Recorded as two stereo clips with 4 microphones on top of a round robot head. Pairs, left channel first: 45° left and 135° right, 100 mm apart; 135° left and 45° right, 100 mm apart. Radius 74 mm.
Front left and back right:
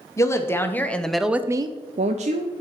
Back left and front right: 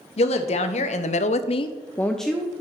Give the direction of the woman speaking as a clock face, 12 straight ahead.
8 o'clock.